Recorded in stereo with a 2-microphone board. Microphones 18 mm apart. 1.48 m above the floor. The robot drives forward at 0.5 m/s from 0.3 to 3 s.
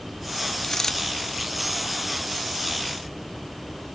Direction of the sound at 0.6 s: 25° left (ahead or behind).